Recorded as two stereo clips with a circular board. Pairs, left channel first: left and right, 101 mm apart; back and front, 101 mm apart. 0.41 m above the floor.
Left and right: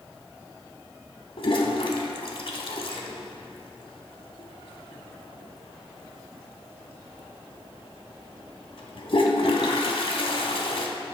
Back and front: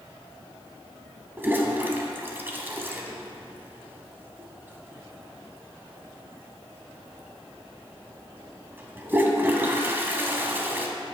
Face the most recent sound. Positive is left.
turn(degrees=70)